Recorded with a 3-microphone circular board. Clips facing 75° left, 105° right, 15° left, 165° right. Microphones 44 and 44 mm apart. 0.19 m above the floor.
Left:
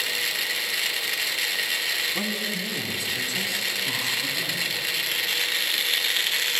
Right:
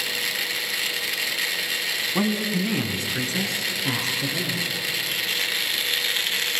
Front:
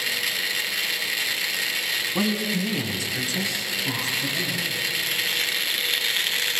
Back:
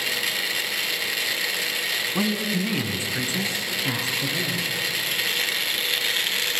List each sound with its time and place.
2.1 s a woman speaking: 75° right, 1.2 m; by 4.7 s 130° right, 3 m